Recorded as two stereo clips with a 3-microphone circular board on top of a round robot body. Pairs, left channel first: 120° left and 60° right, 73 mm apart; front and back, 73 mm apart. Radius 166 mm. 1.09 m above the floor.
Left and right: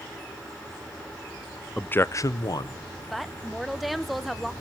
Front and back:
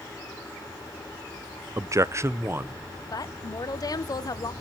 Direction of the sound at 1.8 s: 170° right.